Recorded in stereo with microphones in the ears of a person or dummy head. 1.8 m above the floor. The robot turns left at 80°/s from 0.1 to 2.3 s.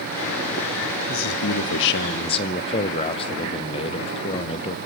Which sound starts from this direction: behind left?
A man speaking, at 1.1 s.